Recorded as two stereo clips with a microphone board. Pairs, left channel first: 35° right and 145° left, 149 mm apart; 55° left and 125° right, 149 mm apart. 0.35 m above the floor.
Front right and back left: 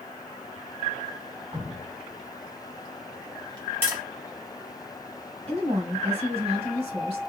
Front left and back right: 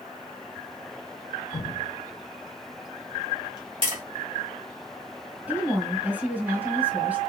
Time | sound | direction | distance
1.5 | dripping | 100° left | 1.9 m
3.8 | tapping | 150° right | 1.9 m
5.5 | a woman speaking | 160° left | 1.3 m